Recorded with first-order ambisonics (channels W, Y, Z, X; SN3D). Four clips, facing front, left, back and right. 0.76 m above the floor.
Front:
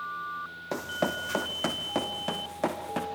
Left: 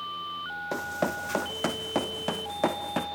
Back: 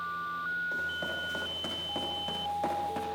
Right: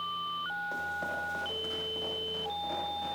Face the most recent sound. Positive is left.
turn(degrees=70)